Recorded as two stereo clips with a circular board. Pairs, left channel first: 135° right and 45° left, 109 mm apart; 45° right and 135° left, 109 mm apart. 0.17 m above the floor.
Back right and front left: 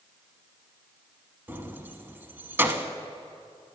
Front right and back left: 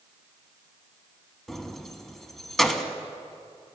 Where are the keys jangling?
35° left, 0.7 m.